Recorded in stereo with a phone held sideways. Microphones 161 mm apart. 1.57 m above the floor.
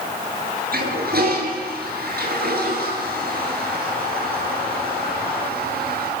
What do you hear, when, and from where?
0.7 s a toilet flushing: 70° right (ahead or behind), 8.5 m